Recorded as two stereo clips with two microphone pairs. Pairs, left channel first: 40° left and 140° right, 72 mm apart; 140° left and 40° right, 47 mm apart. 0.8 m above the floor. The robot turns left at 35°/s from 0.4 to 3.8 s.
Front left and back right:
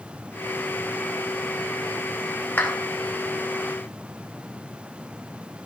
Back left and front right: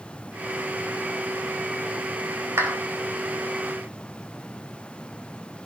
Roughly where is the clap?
Ahead.